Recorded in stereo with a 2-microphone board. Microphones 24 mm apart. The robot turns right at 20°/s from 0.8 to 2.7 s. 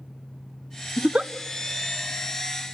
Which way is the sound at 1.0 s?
55° right (ahead or behind).